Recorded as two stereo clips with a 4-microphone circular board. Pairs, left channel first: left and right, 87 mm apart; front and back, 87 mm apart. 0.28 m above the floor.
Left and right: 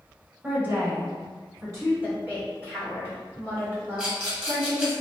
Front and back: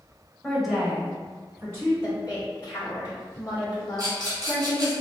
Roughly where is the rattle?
Behind.